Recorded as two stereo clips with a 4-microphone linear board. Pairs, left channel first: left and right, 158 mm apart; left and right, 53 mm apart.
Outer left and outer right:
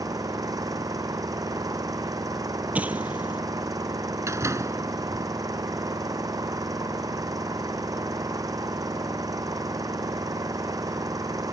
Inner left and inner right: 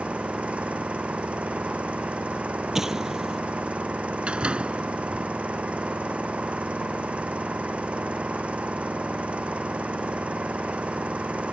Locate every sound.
0.0 s an engine running: 25° right (ahead or behind)
2.8 s an explosion: 10° right (ahead or behind)
4.3 s a door slam: 20° right (ahead or behind)